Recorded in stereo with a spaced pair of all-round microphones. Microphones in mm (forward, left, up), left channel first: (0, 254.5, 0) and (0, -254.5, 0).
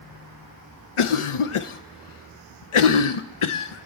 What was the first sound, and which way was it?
A cough, 75° left (ahead or behind).